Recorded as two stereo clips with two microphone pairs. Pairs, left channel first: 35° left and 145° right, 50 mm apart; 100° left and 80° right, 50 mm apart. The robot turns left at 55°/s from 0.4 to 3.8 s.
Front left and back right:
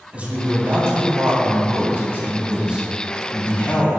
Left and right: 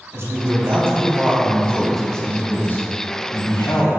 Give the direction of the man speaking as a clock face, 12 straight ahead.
3 o'clock.